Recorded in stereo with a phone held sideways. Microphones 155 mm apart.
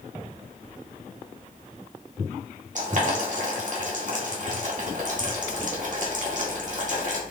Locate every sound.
2.8 s boiling: 55° right (ahead or behind), 2 m